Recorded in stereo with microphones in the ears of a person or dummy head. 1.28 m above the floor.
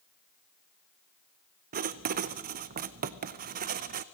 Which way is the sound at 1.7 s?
45° right (ahead or behind).